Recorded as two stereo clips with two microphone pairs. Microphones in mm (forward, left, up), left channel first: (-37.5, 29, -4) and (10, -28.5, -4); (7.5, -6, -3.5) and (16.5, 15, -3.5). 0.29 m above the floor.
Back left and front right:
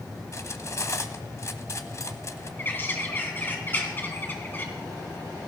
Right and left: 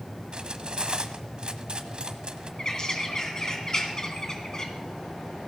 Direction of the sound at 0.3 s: 90° left.